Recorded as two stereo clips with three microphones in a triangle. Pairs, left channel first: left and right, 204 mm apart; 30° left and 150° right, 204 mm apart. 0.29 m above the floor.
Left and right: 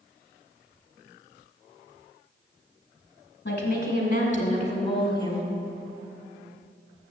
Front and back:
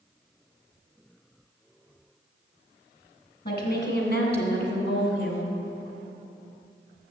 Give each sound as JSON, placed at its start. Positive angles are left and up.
{"t": 3.5, "sound": "a woman speaking", "azimuth_deg": 60, "distance_m": 2.5}